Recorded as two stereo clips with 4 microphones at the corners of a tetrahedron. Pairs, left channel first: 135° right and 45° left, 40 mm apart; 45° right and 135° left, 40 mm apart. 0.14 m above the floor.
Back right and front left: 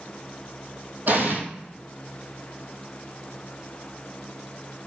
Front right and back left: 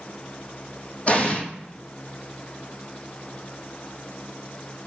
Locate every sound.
1.1 s an explosion: 10° left, 1.0 m